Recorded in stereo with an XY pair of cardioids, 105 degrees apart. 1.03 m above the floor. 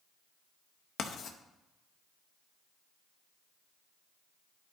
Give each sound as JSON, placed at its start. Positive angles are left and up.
{"t": 1.0, "sound": "writing", "azimuth_deg": 55, "distance_m": 0.9}